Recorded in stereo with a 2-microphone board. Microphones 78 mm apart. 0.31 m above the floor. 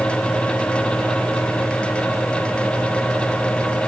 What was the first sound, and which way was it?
Only background noise.